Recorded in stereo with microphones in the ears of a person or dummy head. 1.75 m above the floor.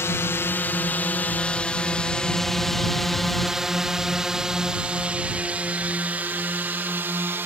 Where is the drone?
15° left (ahead or behind); by 7.5 s 15° right (ahead or behind).